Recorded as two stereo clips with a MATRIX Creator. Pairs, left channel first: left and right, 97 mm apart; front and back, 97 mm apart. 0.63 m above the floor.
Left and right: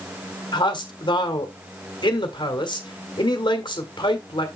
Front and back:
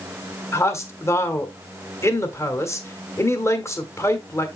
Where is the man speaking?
60° left, 1.4 m.